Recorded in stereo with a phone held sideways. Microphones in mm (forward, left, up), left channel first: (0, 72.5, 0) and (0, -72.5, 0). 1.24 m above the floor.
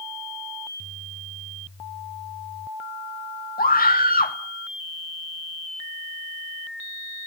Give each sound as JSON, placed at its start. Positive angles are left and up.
{"t": 3.6, "sound": "a scream", "side_deg": 85, "distance_m": 2.5}